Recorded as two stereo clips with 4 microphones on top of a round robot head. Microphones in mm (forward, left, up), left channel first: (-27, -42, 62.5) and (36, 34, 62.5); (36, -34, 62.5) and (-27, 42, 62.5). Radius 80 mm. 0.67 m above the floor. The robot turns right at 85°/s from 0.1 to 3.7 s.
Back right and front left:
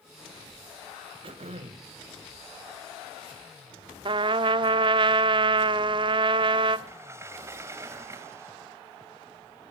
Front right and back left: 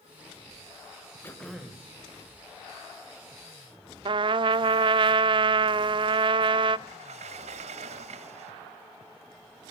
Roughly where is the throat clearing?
Ahead.